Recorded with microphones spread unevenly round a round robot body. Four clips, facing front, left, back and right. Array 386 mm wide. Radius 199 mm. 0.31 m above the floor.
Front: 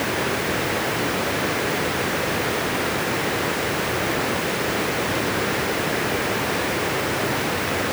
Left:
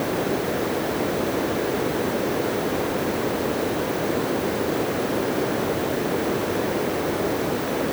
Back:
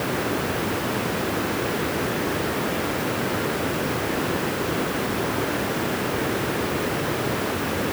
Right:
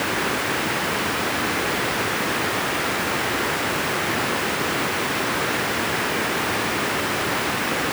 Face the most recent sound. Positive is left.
No sound to turn to.